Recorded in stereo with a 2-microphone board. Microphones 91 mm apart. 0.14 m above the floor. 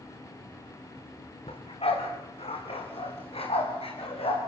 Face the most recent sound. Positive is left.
turn(degrees=80)